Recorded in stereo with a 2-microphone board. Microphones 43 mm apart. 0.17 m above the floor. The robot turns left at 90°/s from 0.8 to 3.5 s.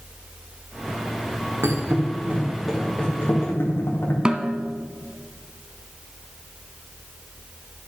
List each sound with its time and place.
1.6 s a thud: 85° right, 4 m; by 4.2 s 75° left (ahead or behind), 4 m
4.2 s a snare drum: 25° right (ahead or behind), 1.0 m